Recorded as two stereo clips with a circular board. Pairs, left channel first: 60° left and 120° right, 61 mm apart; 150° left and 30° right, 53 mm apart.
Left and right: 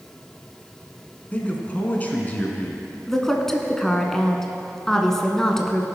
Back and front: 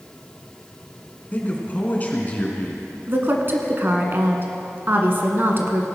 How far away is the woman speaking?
About 1.4 m.